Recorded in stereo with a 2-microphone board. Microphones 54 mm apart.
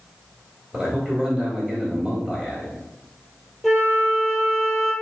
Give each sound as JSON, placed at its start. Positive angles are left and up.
{"t": 0.7, "sound": "a man speaking", "side_deg": -25, "distance_m": 1.6}
{"t": 3.6, "sound": "a flute", "side_deg": -5, "distance_m": 2.0}